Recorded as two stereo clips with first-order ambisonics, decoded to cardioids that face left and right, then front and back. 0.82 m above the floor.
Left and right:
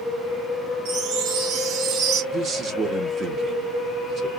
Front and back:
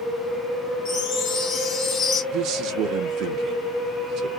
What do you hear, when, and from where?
0.8 s a chime: 55° right, 1.5 m
2.3 s a man speaking: 150° right, 0.8 m